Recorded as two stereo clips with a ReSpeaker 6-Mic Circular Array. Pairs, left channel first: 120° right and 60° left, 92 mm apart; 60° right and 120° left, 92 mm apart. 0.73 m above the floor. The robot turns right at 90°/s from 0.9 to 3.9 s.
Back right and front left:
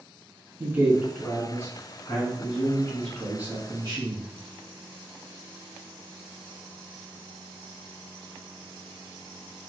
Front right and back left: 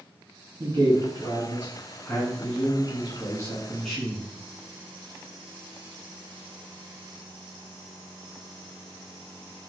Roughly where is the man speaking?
Behind left.